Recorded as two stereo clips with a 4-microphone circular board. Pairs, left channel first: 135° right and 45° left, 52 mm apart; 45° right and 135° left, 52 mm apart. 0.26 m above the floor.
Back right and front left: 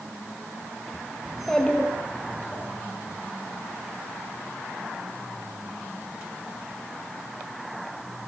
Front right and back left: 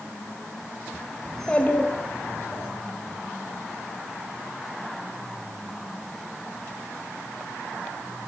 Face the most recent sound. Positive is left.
turn(degrees=-85)